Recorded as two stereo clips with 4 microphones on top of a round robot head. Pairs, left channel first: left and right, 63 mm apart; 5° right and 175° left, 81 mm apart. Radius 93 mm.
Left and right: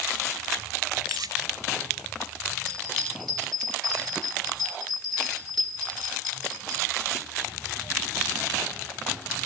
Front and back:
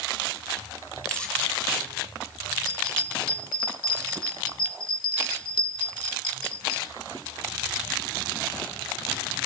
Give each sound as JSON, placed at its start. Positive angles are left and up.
{"t": 1.1, "sound": "cutlery clinking", "azimuth_deg": -85, "distance_m": 2.5}
{"t": 2.7, "sound": "a bell", "azimuth_deg": 10, "distance_m": 4.0}